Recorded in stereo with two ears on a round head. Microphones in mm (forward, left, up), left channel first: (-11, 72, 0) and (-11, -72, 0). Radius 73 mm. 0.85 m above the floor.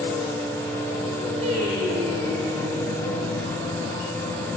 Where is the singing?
40° right (ahead or behind), 6.5 m.